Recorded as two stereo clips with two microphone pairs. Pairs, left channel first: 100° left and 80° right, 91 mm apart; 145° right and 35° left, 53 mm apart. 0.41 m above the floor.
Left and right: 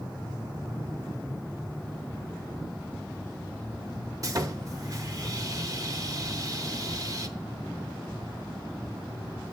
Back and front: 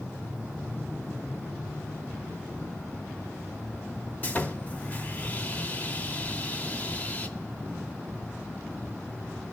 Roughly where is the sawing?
Right.